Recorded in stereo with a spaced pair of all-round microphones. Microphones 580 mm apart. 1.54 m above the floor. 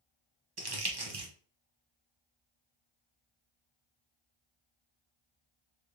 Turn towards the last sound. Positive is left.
turn(degrees=-40)  # may be behind; listen again after turning